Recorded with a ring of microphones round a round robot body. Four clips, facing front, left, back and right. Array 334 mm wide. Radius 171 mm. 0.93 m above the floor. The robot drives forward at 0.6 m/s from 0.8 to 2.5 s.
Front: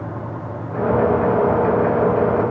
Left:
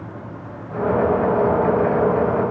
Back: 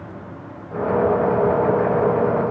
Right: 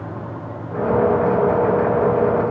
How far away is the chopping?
I don't hear chopping.